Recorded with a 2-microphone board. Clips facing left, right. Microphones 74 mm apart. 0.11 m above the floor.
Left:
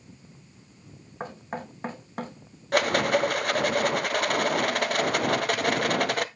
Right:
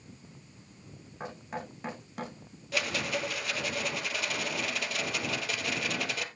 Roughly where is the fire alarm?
I don't hear a fire alarm.